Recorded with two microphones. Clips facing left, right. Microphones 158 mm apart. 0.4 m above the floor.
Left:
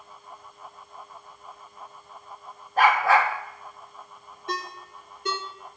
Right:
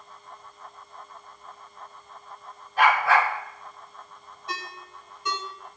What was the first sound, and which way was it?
A dog barking, 50° left (ahead or behind).